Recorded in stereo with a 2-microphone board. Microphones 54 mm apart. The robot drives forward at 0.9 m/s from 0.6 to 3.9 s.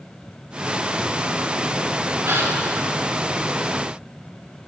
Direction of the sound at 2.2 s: 50° right (ahead or behind).